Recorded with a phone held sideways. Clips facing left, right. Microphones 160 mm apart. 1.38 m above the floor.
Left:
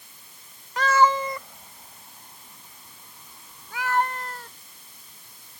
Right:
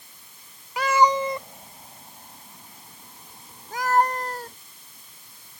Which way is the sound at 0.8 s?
10° right (ahead or behind).